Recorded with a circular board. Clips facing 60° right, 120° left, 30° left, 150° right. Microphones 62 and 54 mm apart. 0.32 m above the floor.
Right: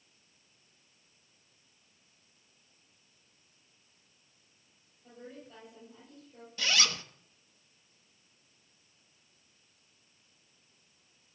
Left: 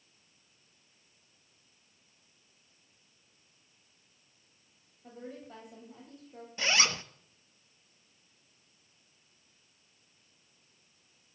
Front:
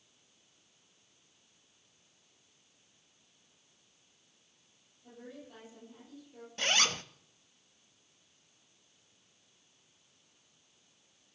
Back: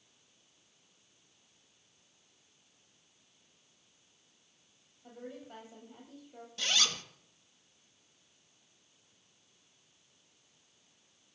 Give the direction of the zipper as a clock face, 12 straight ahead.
10 o'clock.